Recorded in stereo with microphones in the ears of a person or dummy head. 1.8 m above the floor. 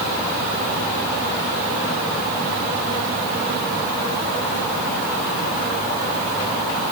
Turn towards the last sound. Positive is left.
No sound to turn to.